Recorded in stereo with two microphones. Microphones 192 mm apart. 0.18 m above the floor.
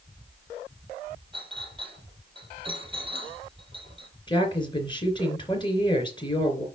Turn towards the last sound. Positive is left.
turn(degrees=25)  # may be behind; listen again after turning